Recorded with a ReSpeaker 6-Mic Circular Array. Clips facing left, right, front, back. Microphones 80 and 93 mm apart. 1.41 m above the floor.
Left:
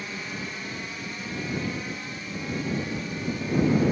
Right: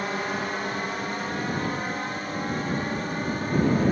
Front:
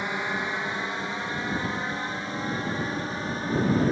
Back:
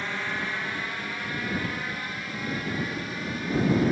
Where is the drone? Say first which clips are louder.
Right 7 dB, front 2 dB; 70° right; by 3.9 s 55° right.